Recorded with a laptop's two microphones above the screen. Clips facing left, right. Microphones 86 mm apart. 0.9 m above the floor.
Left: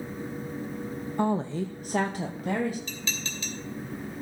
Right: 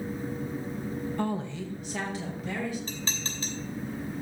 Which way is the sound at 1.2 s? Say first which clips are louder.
Left 8 dB; 15° left (ahead or behind).